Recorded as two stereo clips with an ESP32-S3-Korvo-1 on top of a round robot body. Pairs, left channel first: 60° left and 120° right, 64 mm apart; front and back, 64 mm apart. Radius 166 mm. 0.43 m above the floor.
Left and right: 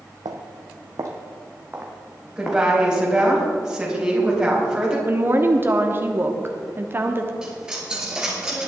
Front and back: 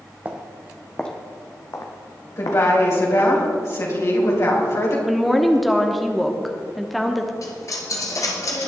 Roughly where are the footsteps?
Behind right.